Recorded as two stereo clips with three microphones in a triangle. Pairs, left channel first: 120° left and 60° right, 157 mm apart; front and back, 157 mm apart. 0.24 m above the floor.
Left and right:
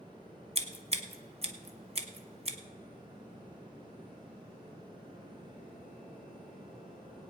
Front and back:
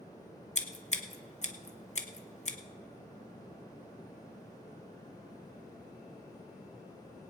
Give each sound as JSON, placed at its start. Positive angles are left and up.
{"t": 0.6, "sound": "scissors", "azimuth_deg": -25, "distance_m": 1.2}